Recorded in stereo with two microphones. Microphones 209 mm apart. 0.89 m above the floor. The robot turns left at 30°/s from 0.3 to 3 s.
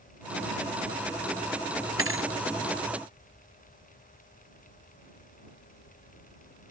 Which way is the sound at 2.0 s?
85° right.